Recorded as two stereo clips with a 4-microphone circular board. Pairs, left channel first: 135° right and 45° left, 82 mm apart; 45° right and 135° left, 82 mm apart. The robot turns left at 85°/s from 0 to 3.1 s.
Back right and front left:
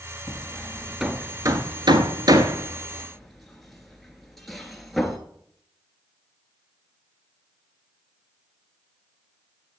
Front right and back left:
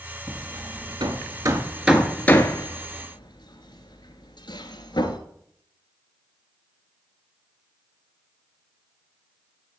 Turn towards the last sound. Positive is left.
turn(degrees=-45)